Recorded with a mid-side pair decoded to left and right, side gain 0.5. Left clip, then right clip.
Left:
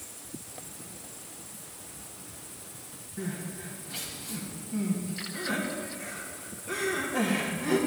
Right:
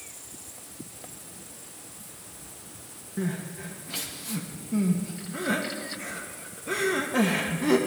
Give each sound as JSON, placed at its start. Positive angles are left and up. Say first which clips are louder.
{"t": 3.2, "sound": "crying", "louder": "right 4 dB", "azimuth_deg": -55, "distance_m": 1.8}